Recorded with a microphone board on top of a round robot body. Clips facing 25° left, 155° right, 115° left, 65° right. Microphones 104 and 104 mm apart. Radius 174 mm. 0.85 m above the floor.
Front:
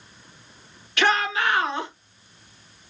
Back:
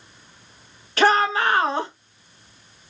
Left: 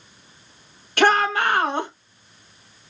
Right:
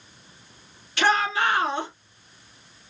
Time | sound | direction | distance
1.0 | a shout | 150° left | 1.5 m